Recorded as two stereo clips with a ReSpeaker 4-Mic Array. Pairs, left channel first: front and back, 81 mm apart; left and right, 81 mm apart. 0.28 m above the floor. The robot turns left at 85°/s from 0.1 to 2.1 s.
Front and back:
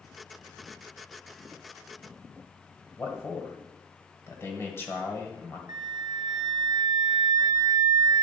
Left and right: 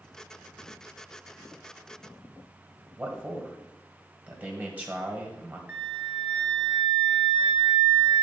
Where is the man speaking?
30° right, 1.8 m.